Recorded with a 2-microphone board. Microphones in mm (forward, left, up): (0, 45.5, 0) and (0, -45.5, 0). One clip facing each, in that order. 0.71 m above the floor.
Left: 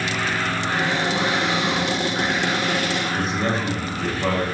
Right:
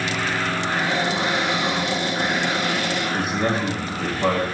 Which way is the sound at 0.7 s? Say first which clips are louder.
Left 1 dB; 85° left.